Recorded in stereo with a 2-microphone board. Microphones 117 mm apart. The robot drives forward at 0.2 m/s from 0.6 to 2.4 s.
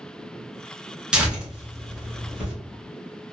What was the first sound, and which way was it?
Tearing paper, 5° right (ahead or behind).